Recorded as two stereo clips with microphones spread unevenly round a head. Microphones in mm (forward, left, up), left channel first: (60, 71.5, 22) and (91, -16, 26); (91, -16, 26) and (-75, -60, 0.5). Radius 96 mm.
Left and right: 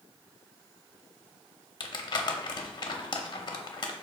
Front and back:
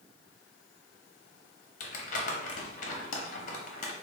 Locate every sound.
1.8 s crumpling: 70° left, 0.6 m